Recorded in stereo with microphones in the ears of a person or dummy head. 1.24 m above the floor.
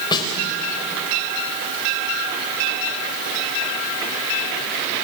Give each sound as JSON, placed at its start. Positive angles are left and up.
{"t": 0.1, "sound": "a snare drum", "side_deg": 25, "distance_m": 3.5}